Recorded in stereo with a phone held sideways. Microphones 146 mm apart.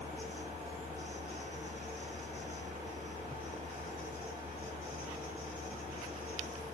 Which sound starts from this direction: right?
A fan, at 0.0 s.